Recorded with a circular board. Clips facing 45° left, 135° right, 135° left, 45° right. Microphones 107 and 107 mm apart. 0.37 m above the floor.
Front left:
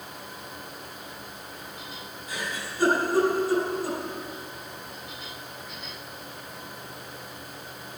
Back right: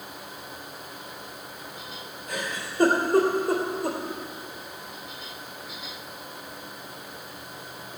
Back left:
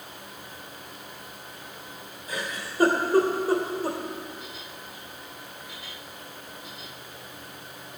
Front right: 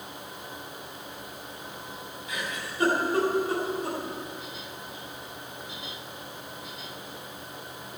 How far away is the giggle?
About 3.5 m.